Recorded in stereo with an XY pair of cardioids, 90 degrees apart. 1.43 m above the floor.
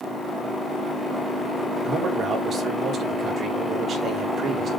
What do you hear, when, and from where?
1.8 s a man speaking: 60° right, 4 m